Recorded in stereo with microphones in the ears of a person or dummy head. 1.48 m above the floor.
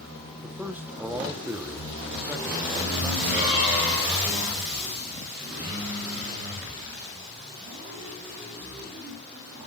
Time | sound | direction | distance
0.4 | a man speaking | 5° right (ahead or behind) | 1.0 m